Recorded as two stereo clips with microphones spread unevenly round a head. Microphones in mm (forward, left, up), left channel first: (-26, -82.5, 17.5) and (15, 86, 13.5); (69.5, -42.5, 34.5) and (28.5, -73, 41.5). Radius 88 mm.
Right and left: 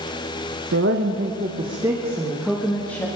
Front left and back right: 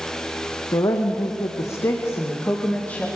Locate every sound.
0.7 s a woman speaking: 50° left, 1.8 m; by 3.1 s 25° right, 2.5 m